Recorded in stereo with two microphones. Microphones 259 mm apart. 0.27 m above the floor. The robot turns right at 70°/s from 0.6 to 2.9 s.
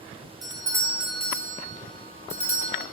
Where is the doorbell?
15° right (ahead or behind), 1.5 m; by 2.8 s 20° left (ahead or behind), 1.5 m.